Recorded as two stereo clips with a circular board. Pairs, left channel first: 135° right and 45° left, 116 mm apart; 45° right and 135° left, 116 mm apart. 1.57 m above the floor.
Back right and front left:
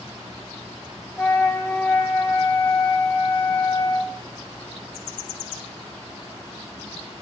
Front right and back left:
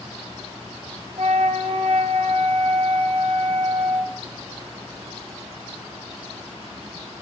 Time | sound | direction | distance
1.2 | a flute | 150° left | 1.2 m